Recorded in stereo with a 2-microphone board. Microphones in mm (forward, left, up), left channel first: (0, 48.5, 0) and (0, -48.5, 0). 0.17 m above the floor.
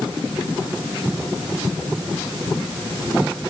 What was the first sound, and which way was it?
Only background noise.